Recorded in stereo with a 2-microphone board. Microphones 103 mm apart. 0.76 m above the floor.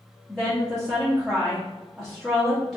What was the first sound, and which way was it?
A woman speaking, centre (ahead or behind).